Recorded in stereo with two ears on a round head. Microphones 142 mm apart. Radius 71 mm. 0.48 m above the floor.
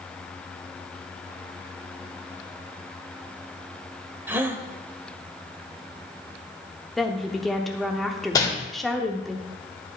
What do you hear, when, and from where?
4.3 s a gasp: 15° right (ahead or behind), 0.6 m
7.0 s a woman speaking: centre (ahead or behind), 0.8 m
8.3 s crumpling: 25° left (ahead or behind), 1.9 m